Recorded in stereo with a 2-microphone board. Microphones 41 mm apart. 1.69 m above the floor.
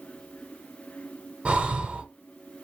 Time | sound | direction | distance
1.4 | breathing | 30° right (ahead or behind) | 0.8 m